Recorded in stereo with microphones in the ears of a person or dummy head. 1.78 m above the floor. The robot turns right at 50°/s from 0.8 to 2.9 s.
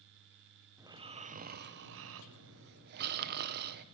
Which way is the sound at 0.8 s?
165° right.